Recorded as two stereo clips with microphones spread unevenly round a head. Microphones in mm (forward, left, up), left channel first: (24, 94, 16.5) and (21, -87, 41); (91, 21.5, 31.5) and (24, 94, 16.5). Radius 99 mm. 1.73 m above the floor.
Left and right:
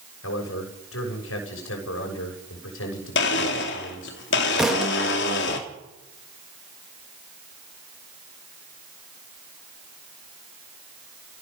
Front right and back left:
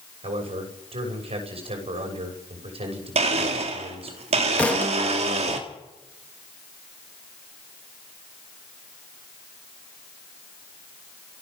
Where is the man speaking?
115° left, 6.5 m.